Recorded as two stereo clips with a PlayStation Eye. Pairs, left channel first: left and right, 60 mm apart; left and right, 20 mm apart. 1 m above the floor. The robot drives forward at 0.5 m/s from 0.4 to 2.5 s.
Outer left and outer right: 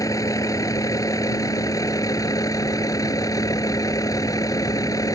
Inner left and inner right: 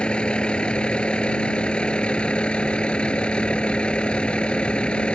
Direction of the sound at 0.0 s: 70° left (ahead or behind).